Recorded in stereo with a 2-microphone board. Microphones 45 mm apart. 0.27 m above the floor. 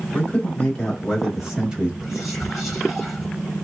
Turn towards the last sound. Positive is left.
turn(degrees=0)  # may be behind; listen again after turning